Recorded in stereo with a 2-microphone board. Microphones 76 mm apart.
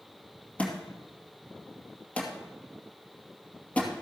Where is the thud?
20° left (ahead or behind), 2.5 m.